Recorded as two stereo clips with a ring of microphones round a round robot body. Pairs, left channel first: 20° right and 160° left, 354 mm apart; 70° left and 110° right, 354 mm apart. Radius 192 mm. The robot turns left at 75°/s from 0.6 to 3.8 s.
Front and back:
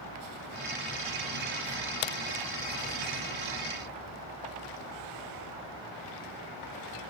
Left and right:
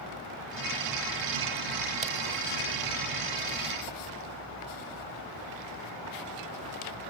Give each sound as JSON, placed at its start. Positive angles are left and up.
{"t": 2.0, "sound": "a crack", "azimuth_deg": -40, "distance_m": 0.6}